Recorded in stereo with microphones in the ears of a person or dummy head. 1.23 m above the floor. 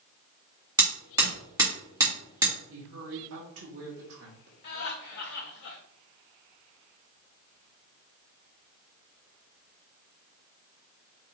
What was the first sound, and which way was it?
Hammering, 20° right (ahead or behind).